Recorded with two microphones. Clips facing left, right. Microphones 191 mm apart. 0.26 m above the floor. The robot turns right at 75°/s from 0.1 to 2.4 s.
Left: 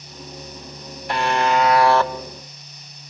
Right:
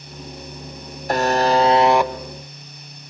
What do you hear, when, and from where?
1.1 s a buzzer: 90° right, 1.1 m; by 2.1 s 15° right, 1.1 m